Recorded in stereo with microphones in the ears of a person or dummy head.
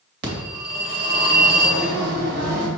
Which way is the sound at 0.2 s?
60° right (ahead or behind).